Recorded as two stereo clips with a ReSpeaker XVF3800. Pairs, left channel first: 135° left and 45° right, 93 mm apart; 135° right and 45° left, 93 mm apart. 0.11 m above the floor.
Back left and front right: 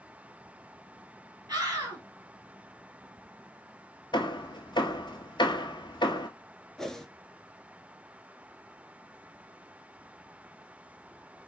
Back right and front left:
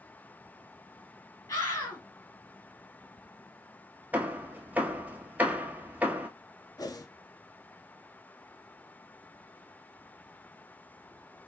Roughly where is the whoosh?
Behind right.